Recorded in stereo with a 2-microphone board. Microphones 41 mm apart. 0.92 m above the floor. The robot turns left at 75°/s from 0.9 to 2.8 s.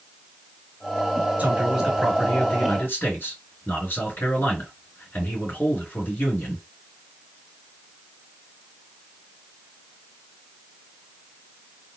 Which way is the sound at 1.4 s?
130° right.